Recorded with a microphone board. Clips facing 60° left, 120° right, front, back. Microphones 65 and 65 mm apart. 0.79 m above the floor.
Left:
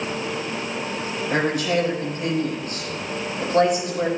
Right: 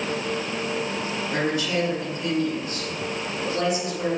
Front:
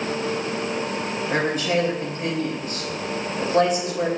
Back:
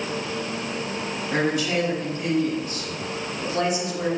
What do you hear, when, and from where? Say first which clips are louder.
1.3 s a woman speaking: left 4 dB, front 1 dB; 45° left, 3 m